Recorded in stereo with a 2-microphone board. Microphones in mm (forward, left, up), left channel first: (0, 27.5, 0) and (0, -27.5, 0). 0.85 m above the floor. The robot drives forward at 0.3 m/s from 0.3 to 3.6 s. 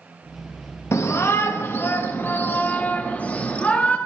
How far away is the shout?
About 0.6 m.